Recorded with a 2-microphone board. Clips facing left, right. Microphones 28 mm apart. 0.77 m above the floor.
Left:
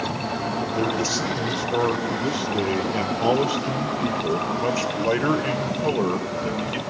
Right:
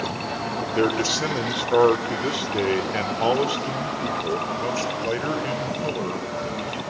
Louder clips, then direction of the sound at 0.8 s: Right 4 dB; 60° right (ahead or behind).